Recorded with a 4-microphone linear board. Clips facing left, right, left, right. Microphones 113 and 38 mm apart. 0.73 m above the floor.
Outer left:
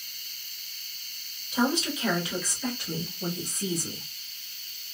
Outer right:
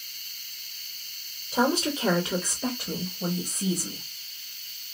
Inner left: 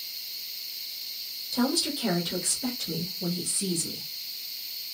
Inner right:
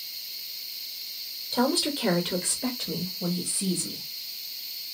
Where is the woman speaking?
35° right (ahead or behind), 1.0 m; by 4.0 s 20° right (ahead or behind), 1.7 m.